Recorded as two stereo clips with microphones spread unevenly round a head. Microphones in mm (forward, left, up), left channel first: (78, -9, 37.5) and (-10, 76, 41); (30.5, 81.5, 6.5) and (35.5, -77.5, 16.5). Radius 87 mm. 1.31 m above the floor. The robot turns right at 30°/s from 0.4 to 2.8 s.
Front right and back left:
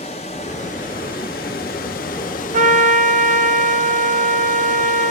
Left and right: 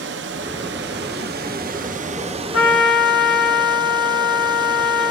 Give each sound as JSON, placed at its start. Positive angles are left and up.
{"t": 0.0, "sound": "running water", "azimuth_deg": -100, "distance_m": 0.7}
{"t": 2.5, "sound": "a trumpet", "azimuth_deg": 115, "distance_m": 0.9}